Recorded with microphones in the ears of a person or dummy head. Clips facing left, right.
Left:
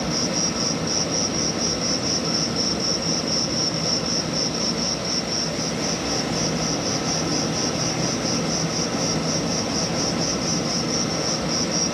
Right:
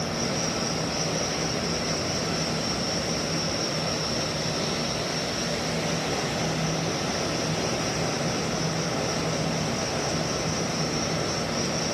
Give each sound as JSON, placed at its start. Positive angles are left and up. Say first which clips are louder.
{"t": 0.0, "sound": "an insect", "louder": "left 3 dB", "side_deg": 60, "distance_m": 0.8}